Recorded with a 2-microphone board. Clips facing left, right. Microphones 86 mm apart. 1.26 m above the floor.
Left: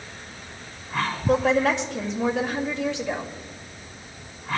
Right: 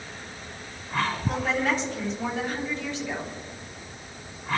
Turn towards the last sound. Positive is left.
turn(degrees=85)